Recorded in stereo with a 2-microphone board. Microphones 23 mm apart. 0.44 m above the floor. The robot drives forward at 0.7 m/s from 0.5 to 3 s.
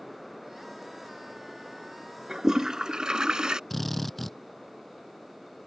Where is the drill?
5° left (ahead or behind).